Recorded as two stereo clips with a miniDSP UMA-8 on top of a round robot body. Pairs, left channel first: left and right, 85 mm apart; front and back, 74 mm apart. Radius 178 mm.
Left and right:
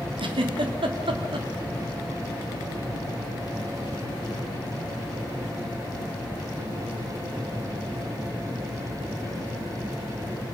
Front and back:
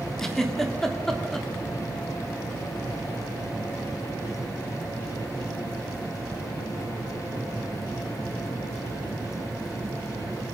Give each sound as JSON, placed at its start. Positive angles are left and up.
{"t": 0.2, "sound": "a giggle", "azimuth_deg": -85, "distance_m": 3.0}